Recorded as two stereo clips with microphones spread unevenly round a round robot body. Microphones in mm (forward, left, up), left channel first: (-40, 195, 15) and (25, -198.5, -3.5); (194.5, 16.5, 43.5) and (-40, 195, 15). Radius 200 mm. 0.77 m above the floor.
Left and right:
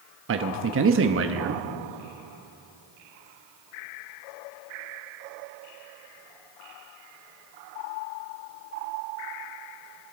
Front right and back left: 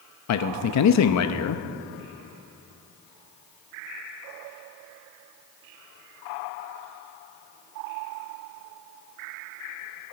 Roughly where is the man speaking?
Ahead right.